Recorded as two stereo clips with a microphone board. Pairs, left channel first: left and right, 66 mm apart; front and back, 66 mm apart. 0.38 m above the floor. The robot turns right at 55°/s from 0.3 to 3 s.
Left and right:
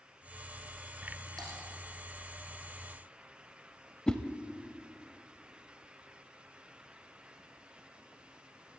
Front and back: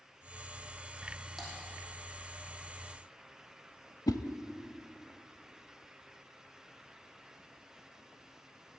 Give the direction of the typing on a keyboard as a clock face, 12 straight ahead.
3 o'clock.